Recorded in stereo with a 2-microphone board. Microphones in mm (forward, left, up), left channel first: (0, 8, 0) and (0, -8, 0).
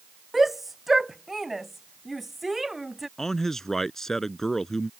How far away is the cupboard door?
I don't hear a cupboard door.